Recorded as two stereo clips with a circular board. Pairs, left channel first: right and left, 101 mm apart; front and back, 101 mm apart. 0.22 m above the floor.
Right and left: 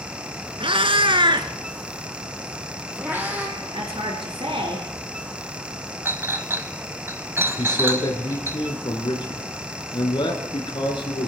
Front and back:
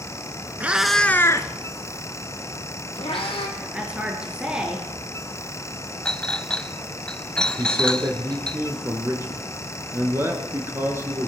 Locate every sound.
0.6 s a cat meowing: 110° left, 1.2 m; by 3.5 s 15° left, 3.5 m
3.6 s a woman speaking: 100° left, 4.5 m
6.0 s a clink: 70° left, 0.6 m
7.6 s a man speaking: 120° right, 4 m